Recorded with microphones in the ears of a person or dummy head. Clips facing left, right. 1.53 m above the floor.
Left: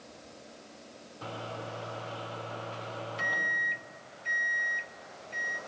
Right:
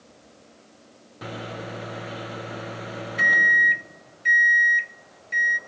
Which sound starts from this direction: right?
A microwave, at 1.2 s.